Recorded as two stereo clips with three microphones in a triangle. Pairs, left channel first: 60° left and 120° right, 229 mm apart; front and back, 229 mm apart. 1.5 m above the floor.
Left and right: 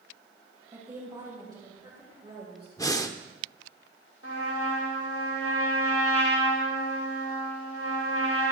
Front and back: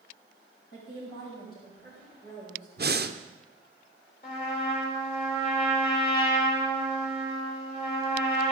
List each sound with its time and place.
0.7 s a woman speaking: 40° right, 6 m; by 2.7 s 55° right, 6 m
2.8 s breathing: 135° left, 0.6 m
4.2 s a trumpet: 50° left, 3.5 m